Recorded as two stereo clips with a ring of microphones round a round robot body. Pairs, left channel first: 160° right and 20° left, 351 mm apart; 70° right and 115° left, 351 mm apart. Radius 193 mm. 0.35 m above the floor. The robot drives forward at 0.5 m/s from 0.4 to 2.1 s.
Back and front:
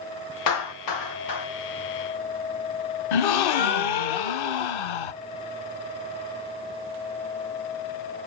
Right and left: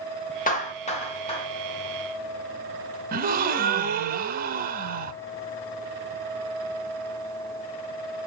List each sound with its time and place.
0.5 s a clap: 135° right, 2.5 m; by 1.5 s 145° right, 2.5 m
3.1 s a gasp: straight behind, 0.9 m